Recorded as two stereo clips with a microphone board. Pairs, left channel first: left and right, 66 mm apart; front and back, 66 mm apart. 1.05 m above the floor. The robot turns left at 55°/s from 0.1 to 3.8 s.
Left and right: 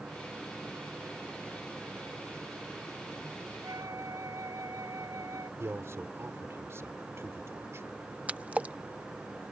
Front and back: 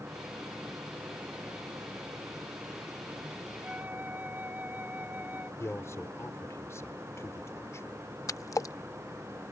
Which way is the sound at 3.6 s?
110° right.